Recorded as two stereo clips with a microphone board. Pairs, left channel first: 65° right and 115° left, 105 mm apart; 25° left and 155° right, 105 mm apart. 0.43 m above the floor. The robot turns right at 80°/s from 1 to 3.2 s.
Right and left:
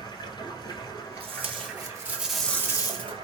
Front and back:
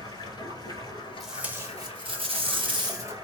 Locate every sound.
0.0 s running water: 25° right, 1.7 m; by 3.2 s 150° left, 1.7 m
1.2 s tape being pulled: 110° left, 0.6 m; by 3.2 s 90° right, 0.6 m